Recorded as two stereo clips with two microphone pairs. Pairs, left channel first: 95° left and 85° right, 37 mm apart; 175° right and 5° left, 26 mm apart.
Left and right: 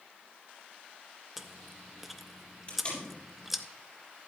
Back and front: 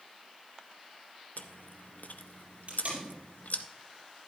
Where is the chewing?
170° right, 0.7 m.